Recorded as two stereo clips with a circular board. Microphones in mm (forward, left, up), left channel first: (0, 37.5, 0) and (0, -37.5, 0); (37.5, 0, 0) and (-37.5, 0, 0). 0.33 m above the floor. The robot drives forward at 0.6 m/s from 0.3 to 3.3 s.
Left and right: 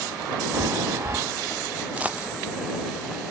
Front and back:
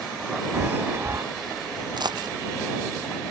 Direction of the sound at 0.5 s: 120° right.